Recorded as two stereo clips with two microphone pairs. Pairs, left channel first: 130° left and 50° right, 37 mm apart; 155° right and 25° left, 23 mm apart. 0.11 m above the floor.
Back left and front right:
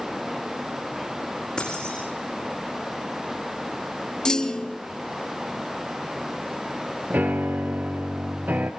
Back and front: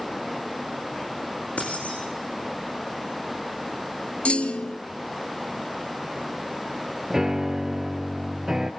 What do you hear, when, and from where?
1.6 s keys jangling: 165° right, 5.5 m
4.2 s a clunk: 165° right, 0.6 m
7.1 s a piano: 35° right, 1.3 m